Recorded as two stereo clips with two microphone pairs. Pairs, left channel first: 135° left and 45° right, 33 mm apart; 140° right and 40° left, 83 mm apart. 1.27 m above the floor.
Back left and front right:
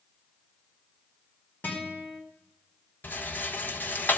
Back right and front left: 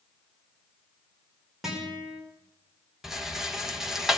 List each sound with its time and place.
1.6 s a guitar: 125° left, 5 m
3.0 s a rattle: 125° left, 1.3 m